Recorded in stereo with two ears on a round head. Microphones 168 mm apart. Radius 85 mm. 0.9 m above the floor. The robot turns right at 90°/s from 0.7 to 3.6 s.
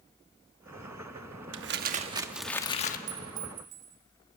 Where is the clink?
110° right, 1.8 m; by 4.0 s 65° right, 1.8 m.